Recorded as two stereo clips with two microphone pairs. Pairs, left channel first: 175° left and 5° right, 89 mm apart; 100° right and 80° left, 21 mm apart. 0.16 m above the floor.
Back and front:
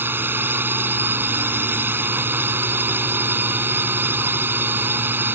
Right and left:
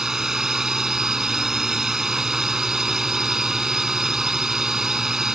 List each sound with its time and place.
0.0 s a drone: 40° left